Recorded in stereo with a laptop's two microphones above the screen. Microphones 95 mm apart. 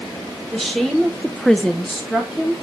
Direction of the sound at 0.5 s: 5° left (ahead or behind).